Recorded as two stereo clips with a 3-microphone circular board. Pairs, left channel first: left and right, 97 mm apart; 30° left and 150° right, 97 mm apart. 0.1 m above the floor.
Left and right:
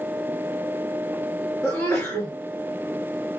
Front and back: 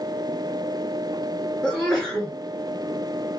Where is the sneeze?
120° left, 1.8 m.